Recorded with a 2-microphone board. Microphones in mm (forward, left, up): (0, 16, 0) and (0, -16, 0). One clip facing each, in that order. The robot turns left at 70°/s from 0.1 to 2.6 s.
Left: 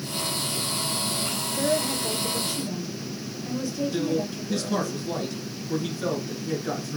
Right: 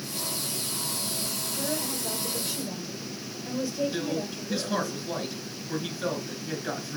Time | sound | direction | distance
1.5 | a woman speaking | 65° left | 3 m
3.9 | a man speaking | 10° right (ahead or behind) | 2 m